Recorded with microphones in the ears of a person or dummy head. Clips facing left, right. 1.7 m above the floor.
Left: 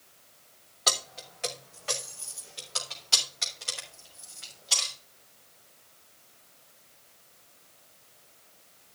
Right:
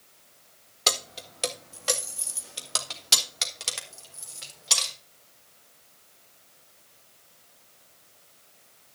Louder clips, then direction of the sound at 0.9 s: Right 3 dB; 30° right (ahead or behind).